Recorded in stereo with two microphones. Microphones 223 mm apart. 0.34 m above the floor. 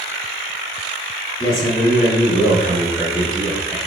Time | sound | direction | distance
1.4 | a man speaking | 25° left (ahead or behind) | 0.9 m